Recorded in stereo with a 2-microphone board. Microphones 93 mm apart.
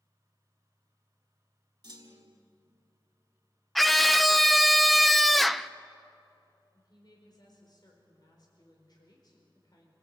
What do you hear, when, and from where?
1.8 s a clunk: 50° right (ahead or behind), 1.9 m
3.8 s a scream: centre (ahead or behind), 0.7 m
6.7 s a woman speaking: 50° left (ahead or behind), 4.5 m